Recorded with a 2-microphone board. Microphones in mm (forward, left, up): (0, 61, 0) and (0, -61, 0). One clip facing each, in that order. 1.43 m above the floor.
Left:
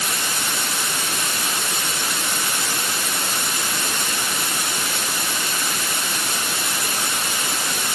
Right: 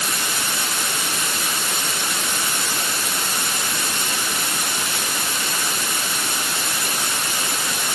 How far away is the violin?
I don't hear a violin.